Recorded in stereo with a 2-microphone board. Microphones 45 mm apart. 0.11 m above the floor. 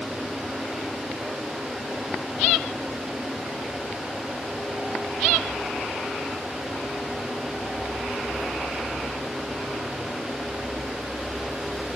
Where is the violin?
I don't hear a violin.